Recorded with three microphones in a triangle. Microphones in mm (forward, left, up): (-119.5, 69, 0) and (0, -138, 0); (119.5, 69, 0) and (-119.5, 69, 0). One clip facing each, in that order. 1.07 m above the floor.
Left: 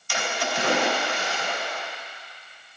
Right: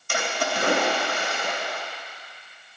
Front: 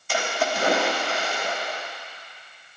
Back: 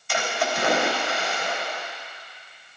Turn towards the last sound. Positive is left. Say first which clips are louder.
# right 2 dB, front 1 dB
turn(degrees=-40)